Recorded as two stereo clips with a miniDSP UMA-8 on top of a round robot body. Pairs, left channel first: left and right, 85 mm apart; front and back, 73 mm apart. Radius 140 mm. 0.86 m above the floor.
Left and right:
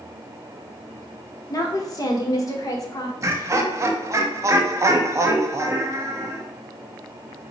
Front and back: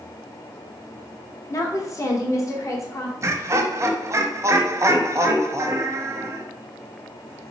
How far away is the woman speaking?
About 1.0 m.